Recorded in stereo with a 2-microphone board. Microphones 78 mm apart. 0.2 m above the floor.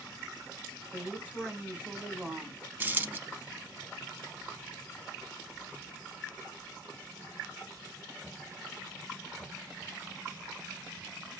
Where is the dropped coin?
25° right (ahead or behind), 0.6 m.